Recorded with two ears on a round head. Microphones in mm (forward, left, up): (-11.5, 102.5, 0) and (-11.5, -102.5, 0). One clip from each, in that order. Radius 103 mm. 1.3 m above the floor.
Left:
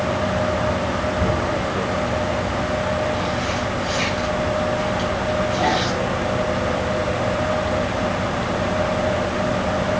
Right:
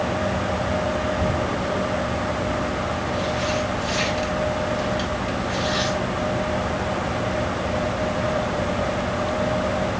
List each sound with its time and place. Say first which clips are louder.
1.2 s tearing paper: left 2 dB; 30° right (ahead or behind), 4 m